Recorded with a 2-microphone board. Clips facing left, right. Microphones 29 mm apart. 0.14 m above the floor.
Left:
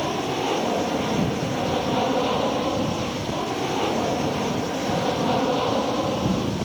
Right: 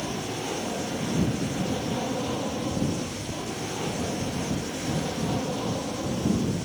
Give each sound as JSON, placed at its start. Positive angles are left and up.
{"t": 0.0, "sound": "an aircraft", "side_deg": 35}